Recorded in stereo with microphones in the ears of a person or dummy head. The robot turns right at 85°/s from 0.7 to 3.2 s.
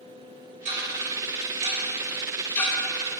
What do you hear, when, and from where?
0.7 s ticking: 25° right (ahead or behind), 1.4 m; by 3.2 s 35° left (ahead or behind), 1.4 m